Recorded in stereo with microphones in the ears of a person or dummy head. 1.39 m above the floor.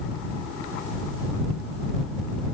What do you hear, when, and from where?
Only background noise.